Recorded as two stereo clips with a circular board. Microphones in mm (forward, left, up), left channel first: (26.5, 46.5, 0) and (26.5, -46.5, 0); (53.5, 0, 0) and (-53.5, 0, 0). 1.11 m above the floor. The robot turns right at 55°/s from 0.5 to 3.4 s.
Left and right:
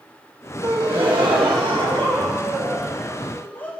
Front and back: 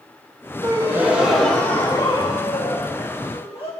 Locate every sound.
0.6 s a gasp: 130° right, 3.5 m; by 3.7 s 20° left, 3.5 m